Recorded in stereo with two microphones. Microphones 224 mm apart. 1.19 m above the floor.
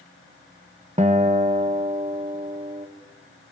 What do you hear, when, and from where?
1.0 s a guitar: 30° right (ahead or behind), 1.4 m